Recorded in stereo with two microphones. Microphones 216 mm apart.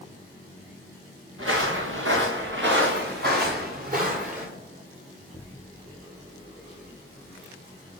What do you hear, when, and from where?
1.4 s footsteps: 80° right, 2 m; by 4.5 s 35° right (ahead or behind), 2.5 m